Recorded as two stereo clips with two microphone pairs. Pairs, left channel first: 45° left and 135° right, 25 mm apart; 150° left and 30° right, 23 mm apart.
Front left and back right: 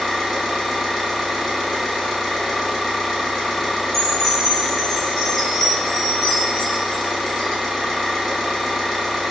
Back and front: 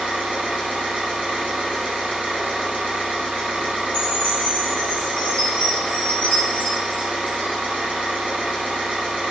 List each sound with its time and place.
0.0 s an engine running: 45° right, 0.8 m
3.9 s a chime: 120° left, 1.0 m